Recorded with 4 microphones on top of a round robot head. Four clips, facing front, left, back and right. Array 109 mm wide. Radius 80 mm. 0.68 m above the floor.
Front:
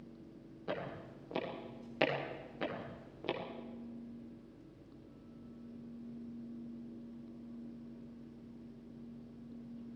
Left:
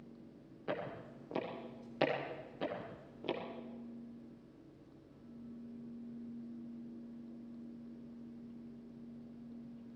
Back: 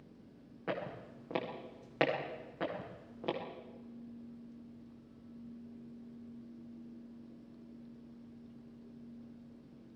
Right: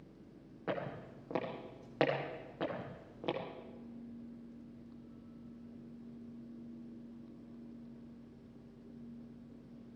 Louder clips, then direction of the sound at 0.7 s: Right 1 dB, back 2 dB; 130° right.